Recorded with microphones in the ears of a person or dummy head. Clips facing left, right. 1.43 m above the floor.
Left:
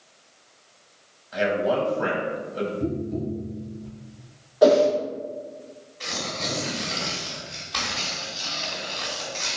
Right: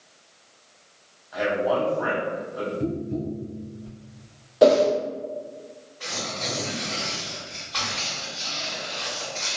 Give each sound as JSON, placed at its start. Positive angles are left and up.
{"t": 1.3, "sound": "a man speaking", "side_deg": 40, "distance_m": 0.9}
{"t": 2.8, "sound": "tapping", "side_deg": -35, "distance_m": 1.2}
{"t": 4.6, "sound": "a whoosh", "side_deg": -35, "distance_m": 0.8}
{"t": 6.0, "sound": "tearing paper", "side_deg": 35, "distance_m": 1.4}